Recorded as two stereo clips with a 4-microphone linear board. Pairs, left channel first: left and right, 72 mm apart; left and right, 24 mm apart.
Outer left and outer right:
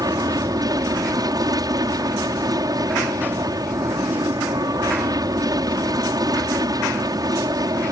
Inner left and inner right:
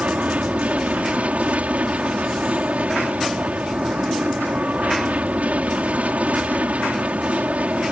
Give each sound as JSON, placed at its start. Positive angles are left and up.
{"t": 0.0, "sound": "an aircraft", "side_deg": -65}